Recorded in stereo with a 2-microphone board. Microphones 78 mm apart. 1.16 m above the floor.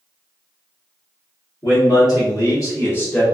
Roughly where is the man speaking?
Left.